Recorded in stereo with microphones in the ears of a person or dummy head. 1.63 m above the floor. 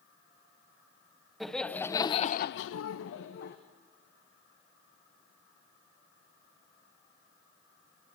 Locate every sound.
1.4 s laughter: centre (ahead or behind), 1.2 m; by 3.6 s 55° left (ahead or behind), 1.1 m